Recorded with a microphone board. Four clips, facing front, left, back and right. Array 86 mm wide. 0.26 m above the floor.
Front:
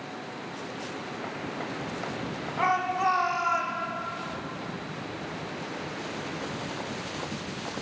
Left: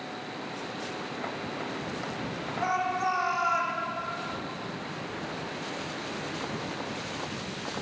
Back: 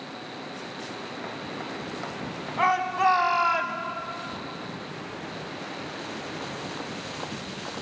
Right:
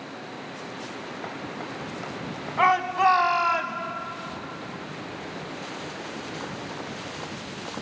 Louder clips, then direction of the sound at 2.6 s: Right 8 dB, back 3 dB; 105° right.